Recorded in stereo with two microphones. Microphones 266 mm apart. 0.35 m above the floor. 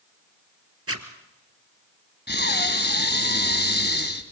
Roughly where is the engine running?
I don't hear an engine running.